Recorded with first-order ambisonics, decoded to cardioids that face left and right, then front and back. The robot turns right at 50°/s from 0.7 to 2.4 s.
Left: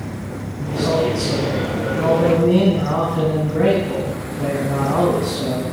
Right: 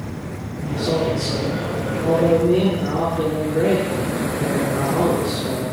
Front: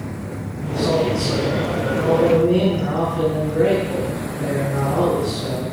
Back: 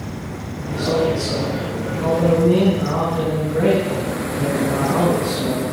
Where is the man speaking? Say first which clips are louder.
Left 3 dB, even; 15° left, 7 m; by 5.6 s 100° left, 7 m.